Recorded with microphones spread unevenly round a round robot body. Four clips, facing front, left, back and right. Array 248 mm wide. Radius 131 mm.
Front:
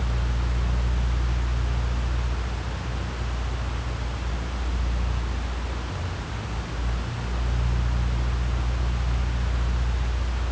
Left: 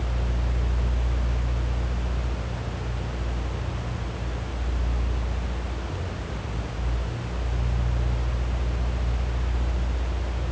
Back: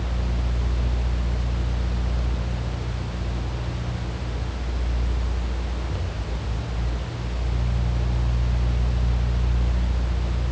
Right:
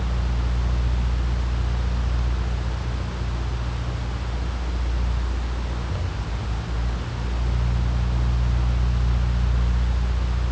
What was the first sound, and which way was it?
Only background noise.